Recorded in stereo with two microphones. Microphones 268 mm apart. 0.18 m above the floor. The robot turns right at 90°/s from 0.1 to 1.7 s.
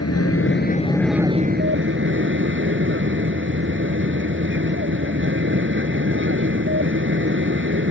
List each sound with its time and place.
0.0 s an aircraft: 90° left; by 7.9 s 125° right